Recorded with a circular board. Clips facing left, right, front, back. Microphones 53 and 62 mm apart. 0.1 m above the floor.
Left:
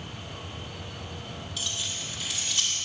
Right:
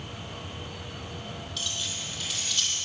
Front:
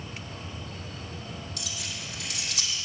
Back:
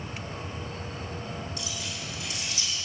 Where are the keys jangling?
5° left, 2.5 m.